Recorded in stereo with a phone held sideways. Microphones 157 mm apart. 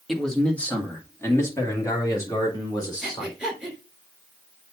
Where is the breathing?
Centre (ahead or behind), 3.5 m.